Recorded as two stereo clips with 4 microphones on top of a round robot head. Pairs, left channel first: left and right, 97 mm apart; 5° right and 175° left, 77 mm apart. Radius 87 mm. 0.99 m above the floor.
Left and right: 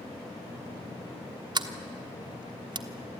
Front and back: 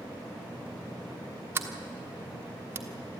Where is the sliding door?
125° right, 1.2 m.